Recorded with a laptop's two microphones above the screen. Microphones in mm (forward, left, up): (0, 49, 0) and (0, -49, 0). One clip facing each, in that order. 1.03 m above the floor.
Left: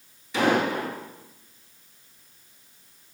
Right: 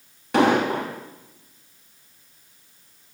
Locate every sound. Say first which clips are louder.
0.3 s an explosion: right 4 dB; 65° right (ahead or behind), 3 m